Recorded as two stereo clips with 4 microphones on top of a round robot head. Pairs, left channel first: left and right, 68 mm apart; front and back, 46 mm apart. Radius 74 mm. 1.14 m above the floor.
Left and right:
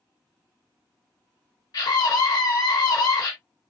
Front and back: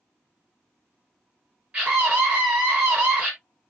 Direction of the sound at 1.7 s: 110° left.